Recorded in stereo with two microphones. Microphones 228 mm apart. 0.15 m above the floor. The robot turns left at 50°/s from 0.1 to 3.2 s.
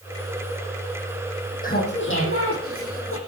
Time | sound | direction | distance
1.6 | laughter | 140° left | 7.5 m